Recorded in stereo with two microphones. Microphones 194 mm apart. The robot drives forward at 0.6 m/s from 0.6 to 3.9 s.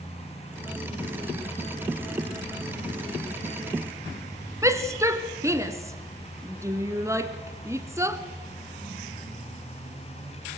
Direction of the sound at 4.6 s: 15° right (ahead or behind).